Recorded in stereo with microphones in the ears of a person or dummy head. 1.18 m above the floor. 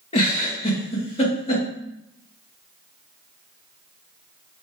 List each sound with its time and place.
0.1 s a giggle: 30° left (ahead or behind), 1.2 m